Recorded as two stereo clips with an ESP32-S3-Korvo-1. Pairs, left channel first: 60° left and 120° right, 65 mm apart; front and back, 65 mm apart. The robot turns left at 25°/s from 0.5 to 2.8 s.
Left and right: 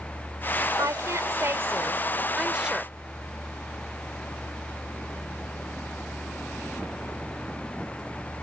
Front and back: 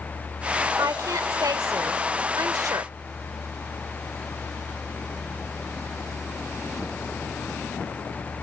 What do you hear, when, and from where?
0.8 s a woman speaking: 150° right; by 2.9 s 160° left